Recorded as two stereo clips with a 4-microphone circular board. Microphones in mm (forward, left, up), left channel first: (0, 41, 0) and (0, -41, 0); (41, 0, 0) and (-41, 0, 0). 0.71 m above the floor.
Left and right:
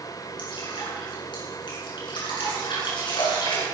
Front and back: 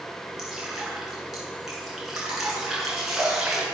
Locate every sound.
0.4 s dripping: 95° left, 8 m